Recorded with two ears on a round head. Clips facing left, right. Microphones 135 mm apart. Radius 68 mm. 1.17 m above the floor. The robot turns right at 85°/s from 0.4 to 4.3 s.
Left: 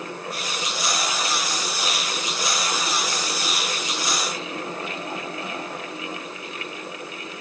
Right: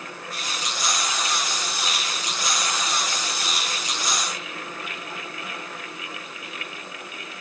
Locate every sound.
Only background noise.